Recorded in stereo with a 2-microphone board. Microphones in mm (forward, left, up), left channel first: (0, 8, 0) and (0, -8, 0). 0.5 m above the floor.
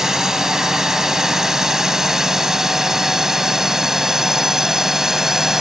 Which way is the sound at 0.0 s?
35° right (ahead or behind).